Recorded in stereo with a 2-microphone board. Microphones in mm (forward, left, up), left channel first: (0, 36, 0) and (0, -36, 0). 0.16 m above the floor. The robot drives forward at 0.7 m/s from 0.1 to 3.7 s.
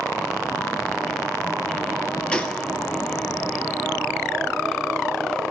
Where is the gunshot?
15° left (ahead or behind), 1.5 m.